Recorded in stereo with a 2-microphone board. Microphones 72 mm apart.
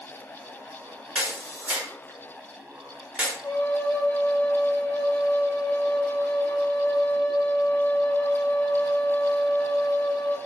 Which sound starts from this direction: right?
A flute, at 3.4 s.